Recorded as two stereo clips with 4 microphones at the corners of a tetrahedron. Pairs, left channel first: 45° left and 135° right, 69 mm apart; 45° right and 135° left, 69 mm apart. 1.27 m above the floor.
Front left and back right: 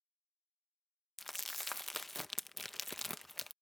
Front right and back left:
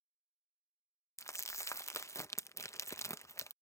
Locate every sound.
1.2 s crumpling: 40° right